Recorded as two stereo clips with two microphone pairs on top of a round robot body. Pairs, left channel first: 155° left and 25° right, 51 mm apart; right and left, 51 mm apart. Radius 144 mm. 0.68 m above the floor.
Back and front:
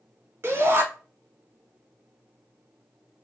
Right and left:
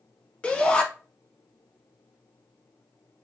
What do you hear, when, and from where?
0.4 s a shout: 35° right, 1.2 m